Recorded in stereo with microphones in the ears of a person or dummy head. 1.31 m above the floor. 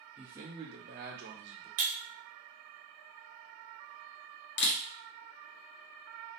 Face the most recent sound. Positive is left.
turn(degrees=55)  # may be behind; listen again after turning